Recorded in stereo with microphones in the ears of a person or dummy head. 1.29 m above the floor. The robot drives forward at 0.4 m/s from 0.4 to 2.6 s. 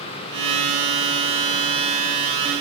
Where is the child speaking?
No child speaking in this recording.